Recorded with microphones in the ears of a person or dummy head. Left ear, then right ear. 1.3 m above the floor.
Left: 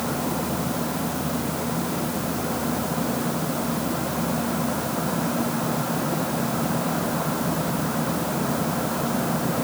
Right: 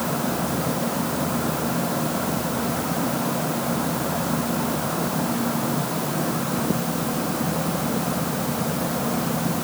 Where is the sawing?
I don't hear sawing.